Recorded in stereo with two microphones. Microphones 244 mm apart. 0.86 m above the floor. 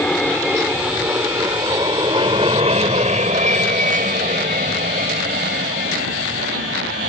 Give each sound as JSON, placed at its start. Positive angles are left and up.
{"t": 0.0, "sound": "an aircraft", "side_deg": 5}